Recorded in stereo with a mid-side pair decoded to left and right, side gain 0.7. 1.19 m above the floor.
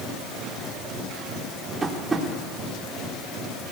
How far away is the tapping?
About 3.5 m.